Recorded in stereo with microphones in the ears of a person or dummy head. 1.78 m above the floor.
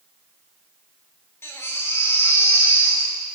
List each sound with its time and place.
1.4 s a baby crying: 15° left (ahead or behind), 4.5 m